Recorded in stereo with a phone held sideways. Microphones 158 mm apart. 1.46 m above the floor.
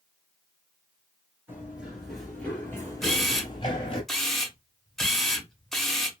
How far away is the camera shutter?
About 0.6 m.